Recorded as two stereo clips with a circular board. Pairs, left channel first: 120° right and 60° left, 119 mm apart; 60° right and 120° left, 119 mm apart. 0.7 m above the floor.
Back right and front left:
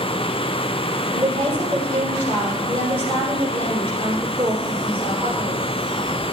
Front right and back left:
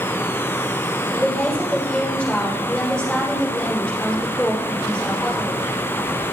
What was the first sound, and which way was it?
A woman speaking, 25° left.